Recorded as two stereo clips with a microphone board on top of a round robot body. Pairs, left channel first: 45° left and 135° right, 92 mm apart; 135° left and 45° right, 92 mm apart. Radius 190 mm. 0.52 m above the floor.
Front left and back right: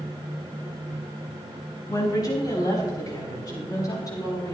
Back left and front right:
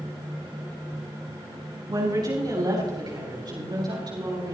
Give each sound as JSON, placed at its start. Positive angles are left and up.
{"t": 1.9, "sound": "a woman speaking", "azimuth_deg": 0, "distance_m": 5.0}